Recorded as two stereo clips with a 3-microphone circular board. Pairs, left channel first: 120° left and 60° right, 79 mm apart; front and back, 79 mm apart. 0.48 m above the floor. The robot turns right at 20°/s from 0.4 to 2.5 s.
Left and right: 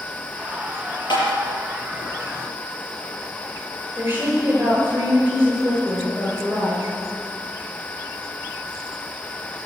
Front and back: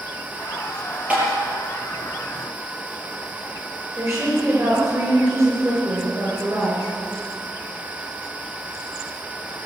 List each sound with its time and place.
1.1 s tapping: 110° left, 6 m
4.0 s a woman speaking: 125° right, 8 m